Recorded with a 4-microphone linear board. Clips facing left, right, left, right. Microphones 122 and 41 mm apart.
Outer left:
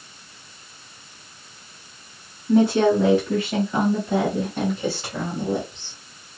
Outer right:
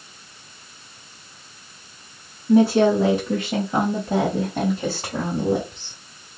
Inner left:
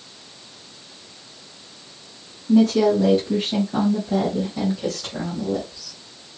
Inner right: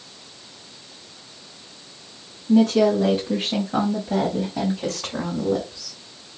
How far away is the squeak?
No squeak in this recording.